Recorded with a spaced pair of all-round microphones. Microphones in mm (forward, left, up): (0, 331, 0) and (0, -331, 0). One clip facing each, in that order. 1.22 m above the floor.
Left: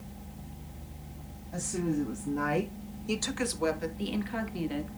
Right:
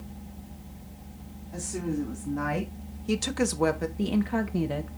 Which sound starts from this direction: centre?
A woman speaking, at 1.5 s.